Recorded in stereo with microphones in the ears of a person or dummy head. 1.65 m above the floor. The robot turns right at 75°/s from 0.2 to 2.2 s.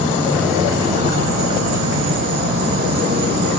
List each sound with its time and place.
0.0 s an insect: 155° left, 0.8 m; by 3.6 s 55° right, 0.8 m